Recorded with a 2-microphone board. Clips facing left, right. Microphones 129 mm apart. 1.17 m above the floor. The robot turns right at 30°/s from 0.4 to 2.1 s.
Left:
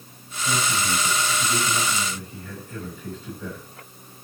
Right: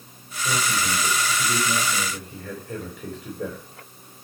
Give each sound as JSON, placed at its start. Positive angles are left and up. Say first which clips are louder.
{"t": 0.4, "sound": "a man speaking", "louder": "even", "azimuth_deg": -150, "distance_m": 4.5}